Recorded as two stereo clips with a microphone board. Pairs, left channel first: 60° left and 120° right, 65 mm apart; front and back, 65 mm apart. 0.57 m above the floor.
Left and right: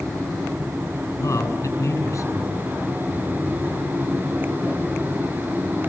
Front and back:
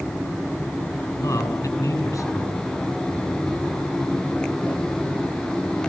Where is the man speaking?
20° left, 7 m.